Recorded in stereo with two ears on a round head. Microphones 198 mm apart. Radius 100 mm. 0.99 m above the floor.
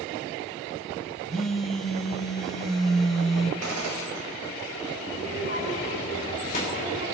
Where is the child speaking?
35° left (ahead or behind), 4 m.